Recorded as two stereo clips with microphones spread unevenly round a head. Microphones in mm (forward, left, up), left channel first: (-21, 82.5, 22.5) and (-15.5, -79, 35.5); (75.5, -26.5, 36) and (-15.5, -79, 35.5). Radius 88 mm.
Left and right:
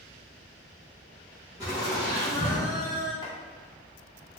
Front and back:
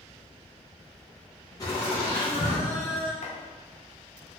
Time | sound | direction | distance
1.6 | laughter | 20° right | 1.5 m
3.2 | chopping | 20° left | 1.0 m